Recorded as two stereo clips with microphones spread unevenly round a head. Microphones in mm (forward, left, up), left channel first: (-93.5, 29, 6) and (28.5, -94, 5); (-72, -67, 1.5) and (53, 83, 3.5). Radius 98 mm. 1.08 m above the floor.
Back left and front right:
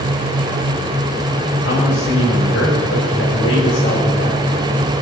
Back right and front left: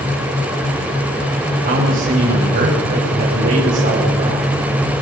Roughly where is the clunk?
I don't hear a clunk.